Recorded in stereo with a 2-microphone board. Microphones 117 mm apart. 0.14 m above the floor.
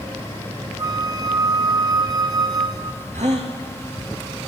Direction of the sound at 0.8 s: 35° right (ahead or behind).